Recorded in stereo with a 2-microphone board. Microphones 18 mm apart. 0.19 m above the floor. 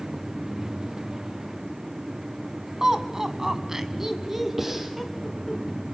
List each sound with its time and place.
2.8 s laughter: 35° right (ahead or behind), 1.6 m; by 5.6 s 10° right (ahead or behind), 2.5 m
4.6 s breathing: 20° right (ahead or behind), 4 m